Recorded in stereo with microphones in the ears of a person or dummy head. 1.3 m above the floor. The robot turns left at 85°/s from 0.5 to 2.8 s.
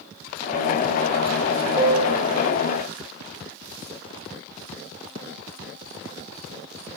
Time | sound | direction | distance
1.8 | a piano | 35° right | 1.5 m